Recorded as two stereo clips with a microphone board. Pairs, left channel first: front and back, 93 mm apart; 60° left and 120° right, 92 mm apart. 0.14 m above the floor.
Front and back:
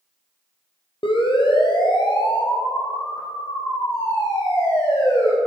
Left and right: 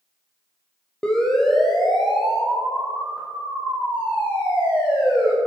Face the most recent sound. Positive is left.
turn(degrees=-50)